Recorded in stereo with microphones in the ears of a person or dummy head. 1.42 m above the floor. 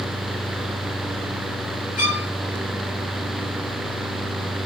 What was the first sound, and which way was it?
A violin, 45° left (ahead or behind).